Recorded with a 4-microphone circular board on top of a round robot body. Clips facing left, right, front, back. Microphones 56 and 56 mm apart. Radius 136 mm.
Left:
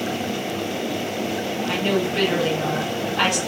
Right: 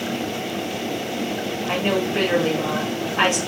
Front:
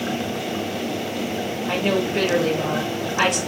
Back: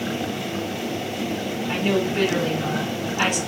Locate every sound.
1.7 s a woman speaking: 25° right, 4 m